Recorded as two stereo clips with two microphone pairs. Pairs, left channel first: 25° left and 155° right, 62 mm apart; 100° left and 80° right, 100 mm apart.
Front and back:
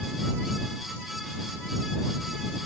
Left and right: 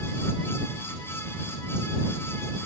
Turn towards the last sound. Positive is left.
No sound to turn to.